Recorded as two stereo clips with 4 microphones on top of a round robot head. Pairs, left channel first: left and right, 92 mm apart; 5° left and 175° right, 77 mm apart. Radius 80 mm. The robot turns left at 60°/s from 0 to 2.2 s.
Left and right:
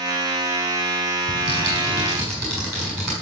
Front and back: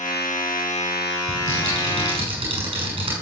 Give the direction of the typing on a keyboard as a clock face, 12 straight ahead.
4 o'clock.